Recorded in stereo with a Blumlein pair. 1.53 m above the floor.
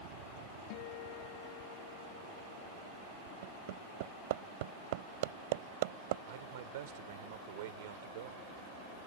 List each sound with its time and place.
0.7 s a guitar: 45° left
3.4 s hammering: 50° right
6.3 s a man speaking: 55° right